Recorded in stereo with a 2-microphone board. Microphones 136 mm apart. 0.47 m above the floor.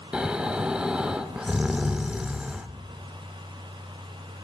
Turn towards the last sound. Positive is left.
turn(degrees=-5)  # may be behind; listen again after turning